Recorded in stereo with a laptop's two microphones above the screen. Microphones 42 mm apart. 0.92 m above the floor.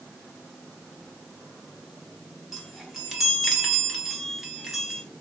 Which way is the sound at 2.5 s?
Centre (ahead or behind).